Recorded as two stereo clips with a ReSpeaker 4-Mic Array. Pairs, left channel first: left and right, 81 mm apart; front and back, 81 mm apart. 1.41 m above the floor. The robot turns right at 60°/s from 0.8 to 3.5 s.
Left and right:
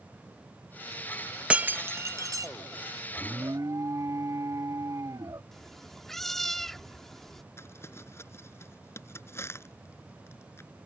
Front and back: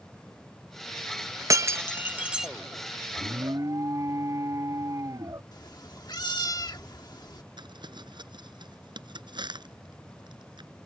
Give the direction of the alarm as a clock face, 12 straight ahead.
5 o'clock.